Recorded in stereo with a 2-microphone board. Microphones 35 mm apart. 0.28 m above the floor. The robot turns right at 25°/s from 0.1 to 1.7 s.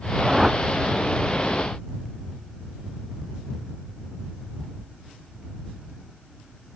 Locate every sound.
0.2 s a whoosh: 10° right (ahead or behind); by 0.6 s 20° right (ahead or behind)